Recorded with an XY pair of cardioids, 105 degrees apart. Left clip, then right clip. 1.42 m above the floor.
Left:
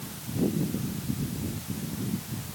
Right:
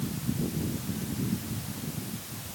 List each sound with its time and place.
Only background noise.